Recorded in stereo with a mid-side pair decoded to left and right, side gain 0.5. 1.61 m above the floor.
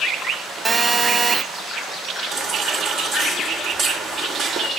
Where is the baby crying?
55° right, 3 m.